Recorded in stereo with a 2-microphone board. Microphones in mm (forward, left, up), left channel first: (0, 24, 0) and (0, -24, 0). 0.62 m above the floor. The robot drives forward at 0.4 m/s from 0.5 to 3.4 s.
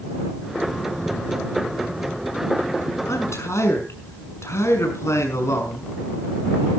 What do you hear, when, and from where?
3.1 s a man speaking: 85° left, 5.5 m; by 5.9 s 80° left, 5.5 m